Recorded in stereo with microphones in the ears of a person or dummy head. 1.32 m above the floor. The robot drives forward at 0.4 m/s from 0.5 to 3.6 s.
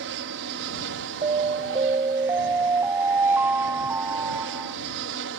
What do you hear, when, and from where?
0.0 s an aircraft: 60° right (ahead or behind)
1.2 s an alarm: 25° right (ahead or behind); by 4.8 s 10° right (ahead or behind)